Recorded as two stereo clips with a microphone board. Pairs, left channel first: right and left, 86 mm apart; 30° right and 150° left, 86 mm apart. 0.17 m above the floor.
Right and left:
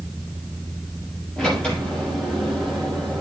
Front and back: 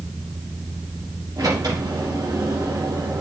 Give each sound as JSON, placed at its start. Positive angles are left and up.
{"t": 1.4, "sound": "a sliding door", "azimuth_deg": -170, "distance_m": 5.5}